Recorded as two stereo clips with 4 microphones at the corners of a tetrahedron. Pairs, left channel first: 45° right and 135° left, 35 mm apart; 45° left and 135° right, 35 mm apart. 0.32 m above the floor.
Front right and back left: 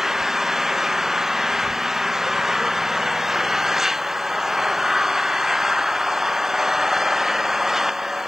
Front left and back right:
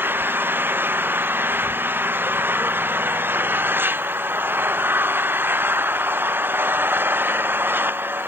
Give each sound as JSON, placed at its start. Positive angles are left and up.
{"t": 0.0, "sound": "an engine running", "azimuth_deg": -145}